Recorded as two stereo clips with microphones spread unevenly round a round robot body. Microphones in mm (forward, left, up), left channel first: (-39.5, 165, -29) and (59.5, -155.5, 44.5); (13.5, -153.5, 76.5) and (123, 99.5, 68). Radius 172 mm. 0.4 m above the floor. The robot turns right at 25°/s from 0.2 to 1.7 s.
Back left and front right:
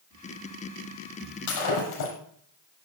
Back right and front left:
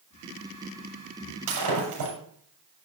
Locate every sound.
1.5 s breaking glass: 65° left, 7 m; by 2.1 s 75° left, 7 m